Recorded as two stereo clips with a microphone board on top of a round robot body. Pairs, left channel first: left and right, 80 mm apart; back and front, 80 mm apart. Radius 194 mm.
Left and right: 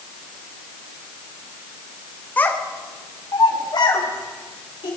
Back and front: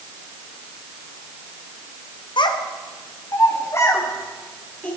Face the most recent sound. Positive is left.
turn(degrees=115)